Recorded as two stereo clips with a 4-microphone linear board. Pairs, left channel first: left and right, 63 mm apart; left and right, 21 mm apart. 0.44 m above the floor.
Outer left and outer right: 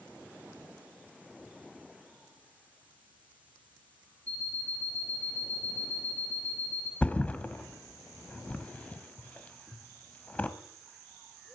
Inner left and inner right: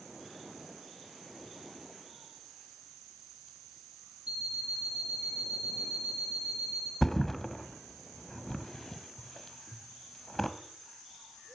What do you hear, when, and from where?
4.3 s an alarm clock: 65° right (ahead or behind), 6.5 m
7.0 s a thud: 20° left (ahead or behind), 0.9 m